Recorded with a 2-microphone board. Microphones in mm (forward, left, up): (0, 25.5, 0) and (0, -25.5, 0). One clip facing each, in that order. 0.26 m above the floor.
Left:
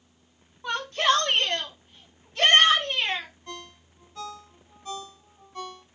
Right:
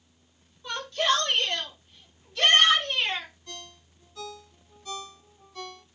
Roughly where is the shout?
Left.